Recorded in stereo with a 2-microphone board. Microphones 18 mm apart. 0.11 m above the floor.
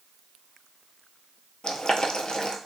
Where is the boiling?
60° left (ahead or behind), 0.6 m.